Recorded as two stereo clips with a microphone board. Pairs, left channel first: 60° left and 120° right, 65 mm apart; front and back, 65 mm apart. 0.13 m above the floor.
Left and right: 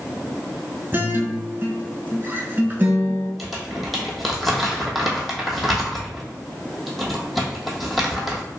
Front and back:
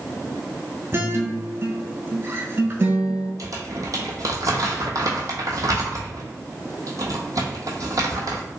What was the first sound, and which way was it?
A guitar, 160° right.